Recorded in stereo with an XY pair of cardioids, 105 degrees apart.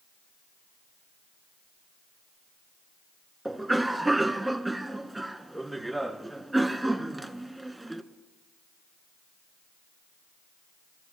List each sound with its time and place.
3.5 s a cough: 5° right, 1.4 m